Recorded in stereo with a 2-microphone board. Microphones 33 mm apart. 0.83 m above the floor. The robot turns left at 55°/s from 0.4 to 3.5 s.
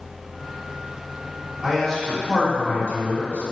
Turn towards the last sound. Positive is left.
turn(degrees=90)